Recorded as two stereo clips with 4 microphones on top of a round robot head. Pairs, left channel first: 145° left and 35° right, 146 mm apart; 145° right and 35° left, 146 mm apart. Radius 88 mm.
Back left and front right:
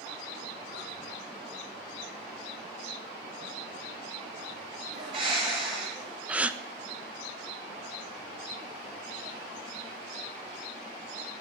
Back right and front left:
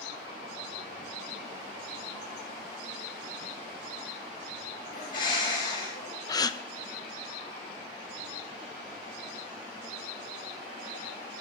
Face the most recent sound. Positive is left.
turn(degrees=-105)